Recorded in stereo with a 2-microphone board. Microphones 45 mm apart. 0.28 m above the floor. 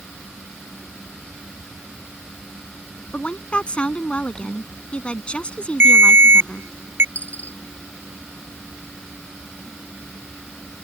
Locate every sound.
3.1 s a woman speaking: 25° left (ahead or behind)
5.8 s a ringtone: 60° right (ahead or behind)
7.2 s a dropped coin: 35° left (ahead or behind)